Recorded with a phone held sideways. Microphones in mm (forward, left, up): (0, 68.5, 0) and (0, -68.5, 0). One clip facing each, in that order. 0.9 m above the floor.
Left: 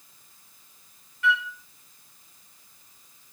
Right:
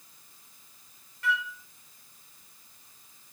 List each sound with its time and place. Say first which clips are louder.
1.2 s a flute: left 4 dB; 40° right (ahead or behind), 0.7 m